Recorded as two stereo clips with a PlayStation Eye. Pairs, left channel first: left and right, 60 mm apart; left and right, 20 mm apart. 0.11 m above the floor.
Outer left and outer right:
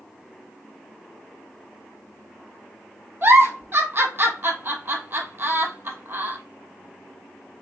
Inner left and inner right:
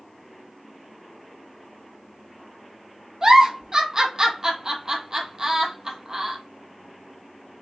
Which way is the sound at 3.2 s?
35° right (ahead or behind).